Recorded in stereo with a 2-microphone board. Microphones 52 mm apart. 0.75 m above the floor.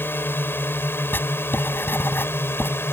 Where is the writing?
45° left (ahead or behind).